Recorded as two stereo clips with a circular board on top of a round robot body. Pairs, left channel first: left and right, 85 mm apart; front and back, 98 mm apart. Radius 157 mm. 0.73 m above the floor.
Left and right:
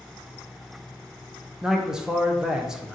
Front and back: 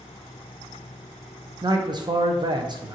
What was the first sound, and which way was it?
A man speaking, 170° right.